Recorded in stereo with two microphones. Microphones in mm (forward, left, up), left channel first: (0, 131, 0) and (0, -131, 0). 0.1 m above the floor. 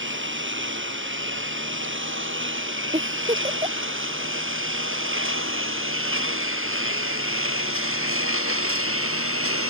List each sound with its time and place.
0.0 s a lawn mower: 50° right (ahead or behind); by 9.7 s 60° right (ahead or behind)
2.9 s a giggle: 25° right (ahead or behind)